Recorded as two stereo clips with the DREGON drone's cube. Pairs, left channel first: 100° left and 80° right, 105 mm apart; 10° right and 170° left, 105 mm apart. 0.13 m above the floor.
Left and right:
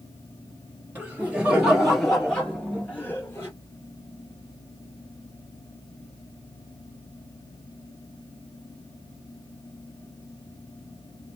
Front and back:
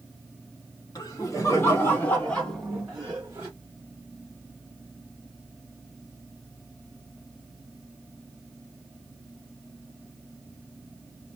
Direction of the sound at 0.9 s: 15° right.